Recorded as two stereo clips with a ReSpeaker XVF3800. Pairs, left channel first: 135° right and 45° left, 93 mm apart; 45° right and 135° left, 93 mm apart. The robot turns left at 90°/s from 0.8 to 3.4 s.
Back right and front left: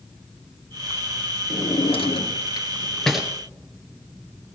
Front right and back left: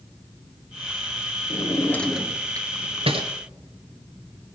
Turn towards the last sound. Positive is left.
turn(degrees=110)